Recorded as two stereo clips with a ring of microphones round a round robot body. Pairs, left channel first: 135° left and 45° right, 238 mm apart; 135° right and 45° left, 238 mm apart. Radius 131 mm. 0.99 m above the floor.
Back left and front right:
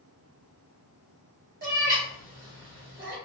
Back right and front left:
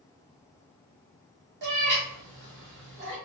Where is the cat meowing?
5° left, 1.1 m.